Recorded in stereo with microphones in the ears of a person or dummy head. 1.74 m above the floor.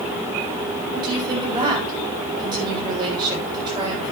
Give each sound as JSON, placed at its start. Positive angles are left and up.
{"t": 0.9, "sound": "a woman speaking", "side_deg": -25, "distance_m": 7.0}